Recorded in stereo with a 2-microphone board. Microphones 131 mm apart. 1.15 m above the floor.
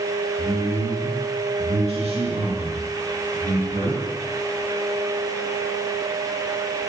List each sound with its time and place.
0.4 s a man speaking: 65° right (ahead or behind), 4 m; by 4.0 s 75° right (ahead or behind), 6 m